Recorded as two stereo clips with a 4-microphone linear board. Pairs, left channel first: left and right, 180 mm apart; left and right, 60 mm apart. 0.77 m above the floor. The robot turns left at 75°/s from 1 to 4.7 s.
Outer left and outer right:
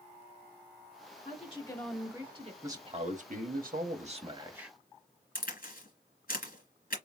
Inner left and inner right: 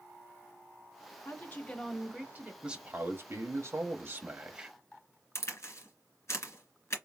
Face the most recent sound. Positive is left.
turn(degrees=55)  # may be behind; listen again after turning